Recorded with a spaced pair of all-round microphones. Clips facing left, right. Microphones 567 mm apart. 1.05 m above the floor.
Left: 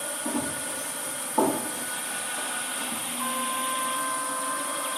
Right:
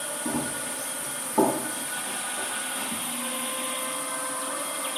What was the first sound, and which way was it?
Running footsteps, 35° right (ahead or behind).